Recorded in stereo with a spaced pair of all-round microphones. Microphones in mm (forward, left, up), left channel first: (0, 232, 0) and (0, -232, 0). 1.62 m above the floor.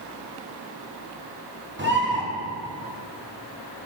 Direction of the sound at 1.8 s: 25° right (ahead or behind).